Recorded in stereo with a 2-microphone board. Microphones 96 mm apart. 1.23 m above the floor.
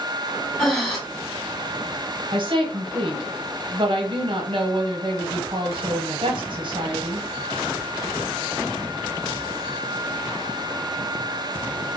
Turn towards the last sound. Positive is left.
turn(degrees=-60)  # may be behind; listen again after turning